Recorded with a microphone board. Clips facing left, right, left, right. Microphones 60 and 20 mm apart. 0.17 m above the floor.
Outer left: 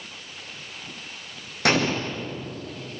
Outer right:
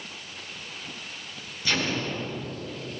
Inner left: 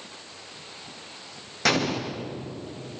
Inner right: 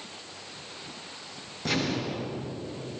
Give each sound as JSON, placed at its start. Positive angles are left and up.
{"t": 1.6, "sound": "an explosion", "side_deg": 75, "distance_m": 6.0}